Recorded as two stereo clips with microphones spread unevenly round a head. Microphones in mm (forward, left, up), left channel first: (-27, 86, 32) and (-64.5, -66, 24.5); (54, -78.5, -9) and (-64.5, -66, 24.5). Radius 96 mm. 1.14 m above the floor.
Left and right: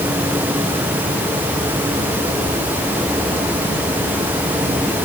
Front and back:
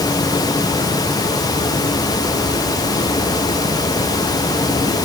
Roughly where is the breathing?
I don't hear breathing.